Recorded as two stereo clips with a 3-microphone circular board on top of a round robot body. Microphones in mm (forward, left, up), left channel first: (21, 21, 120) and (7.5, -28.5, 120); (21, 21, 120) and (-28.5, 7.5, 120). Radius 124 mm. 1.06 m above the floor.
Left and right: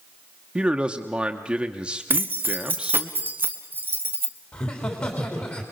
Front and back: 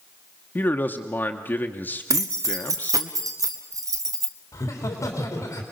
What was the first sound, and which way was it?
A man speaking, 30° right.